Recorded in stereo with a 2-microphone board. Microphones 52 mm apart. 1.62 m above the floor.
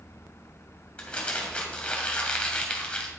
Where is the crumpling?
20° left (ahead or behind), 2 m.